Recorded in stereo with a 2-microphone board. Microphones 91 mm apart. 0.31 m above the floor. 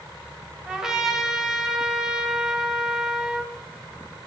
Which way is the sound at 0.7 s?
5° right (ahead or behind).